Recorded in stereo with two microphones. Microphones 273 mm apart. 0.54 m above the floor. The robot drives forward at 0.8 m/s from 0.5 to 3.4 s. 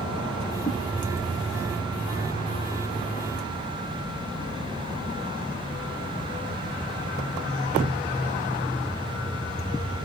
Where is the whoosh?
40° left (ahead or behind), 5 m.